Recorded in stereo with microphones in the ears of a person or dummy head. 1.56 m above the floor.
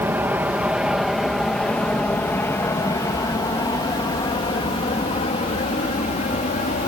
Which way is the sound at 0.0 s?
10° right (ahead or behind).